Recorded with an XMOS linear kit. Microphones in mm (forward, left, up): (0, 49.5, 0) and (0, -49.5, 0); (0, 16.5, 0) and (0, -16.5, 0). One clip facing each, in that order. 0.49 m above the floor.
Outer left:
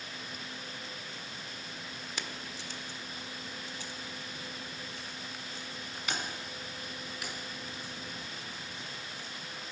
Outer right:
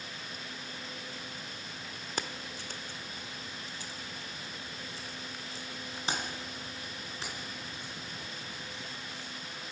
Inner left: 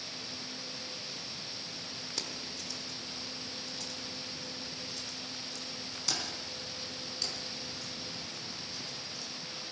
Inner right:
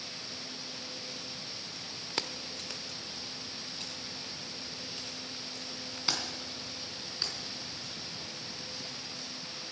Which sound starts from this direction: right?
Keys jangling, at 2.2 s.